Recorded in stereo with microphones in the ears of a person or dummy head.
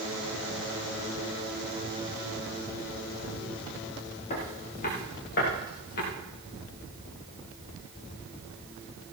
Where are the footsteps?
45° left (ahead or behind), 6 m; by 6.0 s 60° left (ahead or behind), 8.5 m.